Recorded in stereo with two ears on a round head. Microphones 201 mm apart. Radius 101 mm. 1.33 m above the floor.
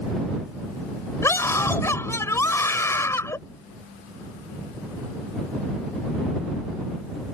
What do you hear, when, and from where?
1.2 s a scream: 10° left (ahead or behind)